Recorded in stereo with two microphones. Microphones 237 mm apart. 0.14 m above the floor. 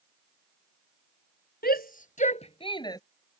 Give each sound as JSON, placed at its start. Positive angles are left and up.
{"t": 1.6, "sound": "a shout", "side_deg": 40}